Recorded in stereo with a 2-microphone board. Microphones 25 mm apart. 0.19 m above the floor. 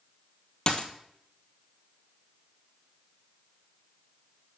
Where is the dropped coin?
40° left (ahead or behind), 1.0 m.